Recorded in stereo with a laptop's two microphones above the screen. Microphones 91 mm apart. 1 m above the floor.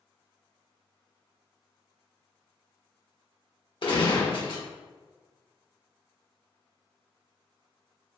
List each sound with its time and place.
3.8 s a gunshot: 60° left (ahead or behind), 0.9 m